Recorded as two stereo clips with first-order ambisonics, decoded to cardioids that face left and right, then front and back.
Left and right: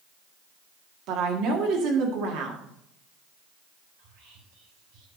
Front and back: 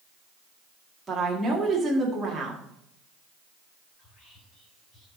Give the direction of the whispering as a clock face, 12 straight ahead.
2 o'clock.